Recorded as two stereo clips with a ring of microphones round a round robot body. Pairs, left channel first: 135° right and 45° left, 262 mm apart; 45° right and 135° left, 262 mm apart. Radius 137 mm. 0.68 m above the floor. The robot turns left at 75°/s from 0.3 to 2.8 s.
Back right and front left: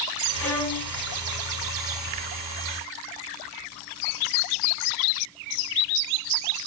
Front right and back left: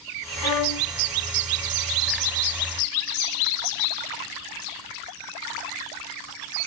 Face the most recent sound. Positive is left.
turn(degrees=135)